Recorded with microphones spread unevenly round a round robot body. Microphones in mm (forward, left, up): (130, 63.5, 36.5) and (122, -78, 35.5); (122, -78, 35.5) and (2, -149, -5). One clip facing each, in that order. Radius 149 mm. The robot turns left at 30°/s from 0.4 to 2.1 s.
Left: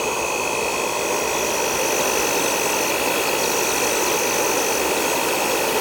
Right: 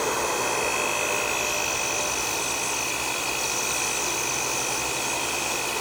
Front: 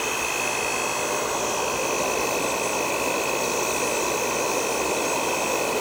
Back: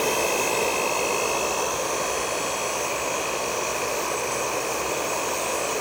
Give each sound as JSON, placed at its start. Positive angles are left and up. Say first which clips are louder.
{"t": 0.0, "sound": "an insect", "louder": "left 3 dB, back 5 dB", "azimuth_deg": 160, "distance_m": 1.6}